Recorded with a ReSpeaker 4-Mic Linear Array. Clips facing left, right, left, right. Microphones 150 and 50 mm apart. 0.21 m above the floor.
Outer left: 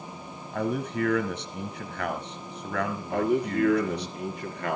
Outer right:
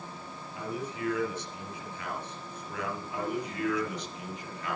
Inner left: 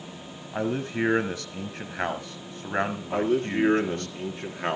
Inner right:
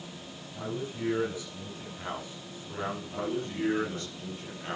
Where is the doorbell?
I don't hear a doorbell.